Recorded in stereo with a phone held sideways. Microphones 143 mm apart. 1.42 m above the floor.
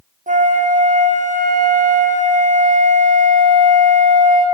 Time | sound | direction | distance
0.3 | a flute | 60° right (ahead or behind) | 0.6 m